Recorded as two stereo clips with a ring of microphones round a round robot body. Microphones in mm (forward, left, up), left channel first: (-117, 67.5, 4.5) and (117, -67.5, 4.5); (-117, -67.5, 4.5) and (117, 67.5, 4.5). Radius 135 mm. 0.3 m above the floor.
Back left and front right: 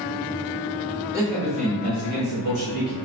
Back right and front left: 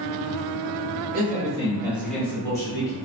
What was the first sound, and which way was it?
A man speaking, 40° left.